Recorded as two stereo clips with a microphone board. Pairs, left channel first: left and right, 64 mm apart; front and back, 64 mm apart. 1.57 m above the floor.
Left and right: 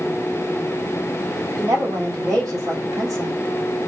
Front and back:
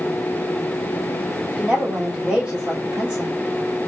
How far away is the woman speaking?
About 3.5 m.